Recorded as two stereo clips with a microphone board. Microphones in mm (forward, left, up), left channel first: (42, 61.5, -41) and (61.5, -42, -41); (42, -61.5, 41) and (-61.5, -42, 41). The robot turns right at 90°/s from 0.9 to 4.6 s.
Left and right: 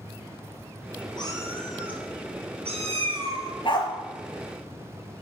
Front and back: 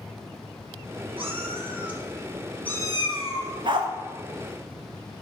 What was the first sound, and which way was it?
A cat meowing, 140° left.